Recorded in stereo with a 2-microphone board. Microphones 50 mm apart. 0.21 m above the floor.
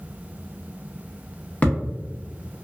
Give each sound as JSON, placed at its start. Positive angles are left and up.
{"t": 1.6, "sound": "a thud", "side_deg": 30, "distance_m": 0.7}